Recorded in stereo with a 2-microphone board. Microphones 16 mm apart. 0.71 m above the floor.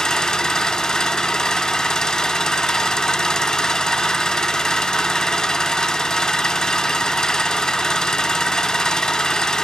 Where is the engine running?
60° left (ahead or behind), 0.9 m.